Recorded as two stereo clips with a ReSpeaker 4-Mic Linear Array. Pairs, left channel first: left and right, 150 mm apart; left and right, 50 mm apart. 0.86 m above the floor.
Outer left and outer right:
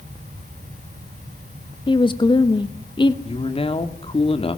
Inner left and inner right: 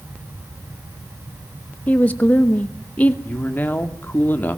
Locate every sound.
1.9 s a woman speaking: 35° left (ahead or behind), 1.0 m
3.2 s a man speaking: 40° left (ahead or behind), 1.9 m